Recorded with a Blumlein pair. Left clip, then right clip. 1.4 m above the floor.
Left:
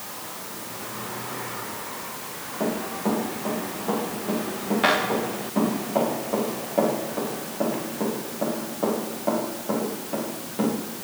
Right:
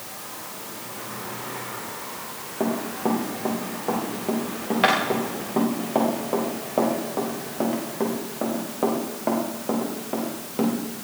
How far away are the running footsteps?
About 7 m.